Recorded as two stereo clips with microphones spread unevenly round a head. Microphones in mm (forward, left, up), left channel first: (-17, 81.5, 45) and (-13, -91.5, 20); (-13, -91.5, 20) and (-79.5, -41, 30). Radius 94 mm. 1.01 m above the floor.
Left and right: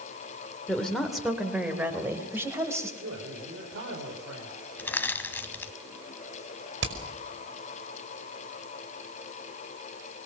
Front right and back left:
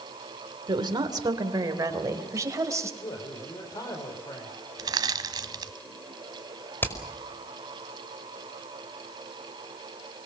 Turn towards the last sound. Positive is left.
turn(degrees=-105)